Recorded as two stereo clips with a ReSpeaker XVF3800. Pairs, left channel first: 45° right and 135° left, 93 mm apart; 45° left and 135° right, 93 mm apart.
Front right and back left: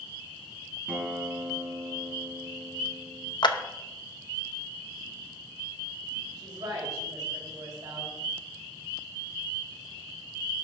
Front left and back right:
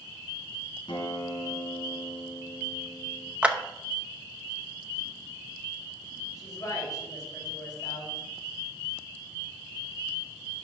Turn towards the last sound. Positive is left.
turn(degrees=90)